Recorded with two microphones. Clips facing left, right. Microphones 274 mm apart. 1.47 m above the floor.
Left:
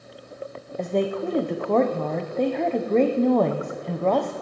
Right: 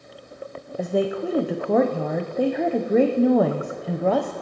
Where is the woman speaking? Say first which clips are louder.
Right 1 dB; 5° right (ahead or behind), 0.7 m.